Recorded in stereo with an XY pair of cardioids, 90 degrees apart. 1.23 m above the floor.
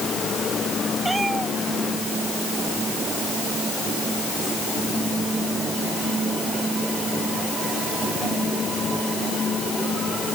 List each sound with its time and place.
1.1 s a cat meowing: 25° right